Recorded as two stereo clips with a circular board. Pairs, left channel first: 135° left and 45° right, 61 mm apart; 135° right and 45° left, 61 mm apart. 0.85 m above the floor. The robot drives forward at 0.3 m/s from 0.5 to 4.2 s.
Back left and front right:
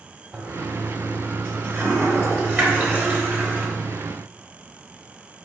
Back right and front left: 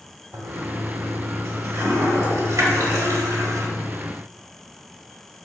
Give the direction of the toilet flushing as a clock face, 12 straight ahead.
12 o'clock.